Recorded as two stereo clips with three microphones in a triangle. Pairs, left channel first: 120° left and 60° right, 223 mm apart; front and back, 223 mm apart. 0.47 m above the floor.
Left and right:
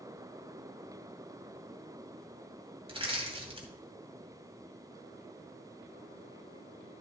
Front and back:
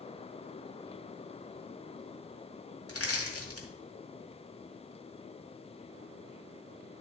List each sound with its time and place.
2.9 s crushing: 5° left, 2 m